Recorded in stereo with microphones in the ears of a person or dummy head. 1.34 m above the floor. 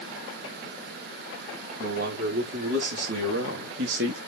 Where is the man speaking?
60° right (ahead or behind), 4 m; by 4.2 s 65° right (ahead or behind), 2 m.